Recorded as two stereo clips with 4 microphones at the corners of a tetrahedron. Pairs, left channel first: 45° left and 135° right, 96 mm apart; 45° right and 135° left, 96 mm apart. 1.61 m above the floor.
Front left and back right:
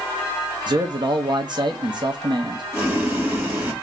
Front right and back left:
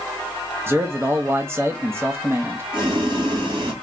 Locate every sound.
0.7 s a man speaking: 160° right, 0.6 m
2.7 s boiling: 160° left, 1.3 m